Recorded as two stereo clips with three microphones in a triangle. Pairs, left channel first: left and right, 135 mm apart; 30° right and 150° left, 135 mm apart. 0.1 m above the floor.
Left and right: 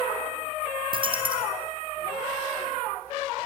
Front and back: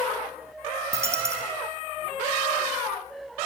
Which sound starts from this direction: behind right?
A dropped coin, at 0.9 s.